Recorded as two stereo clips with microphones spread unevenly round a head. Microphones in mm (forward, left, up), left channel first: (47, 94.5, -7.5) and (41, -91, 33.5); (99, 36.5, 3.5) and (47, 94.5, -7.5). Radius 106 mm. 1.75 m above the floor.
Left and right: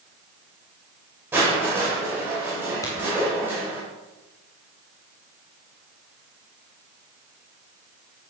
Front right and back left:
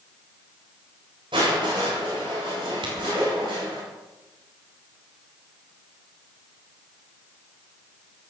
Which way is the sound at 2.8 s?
165° left.